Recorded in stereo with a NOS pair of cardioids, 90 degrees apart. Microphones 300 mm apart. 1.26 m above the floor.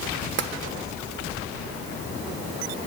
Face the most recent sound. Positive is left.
turn(degrees=-40)